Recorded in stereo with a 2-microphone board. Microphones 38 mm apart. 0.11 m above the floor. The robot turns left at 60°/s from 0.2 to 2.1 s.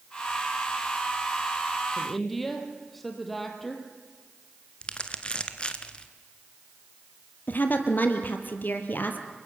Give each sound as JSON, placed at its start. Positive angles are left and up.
{"t": 2.0, "sound": "a woman speaking", "side_deg": 10, "distance_m": 3.5}
{"t": 4.8, "sound": "crumpling", "side_deg": 30, "distance_m": 1.7}
{"t": 7.5, "sound": "a woman speaking", "side_deg": 55, "distance_m": 3.0}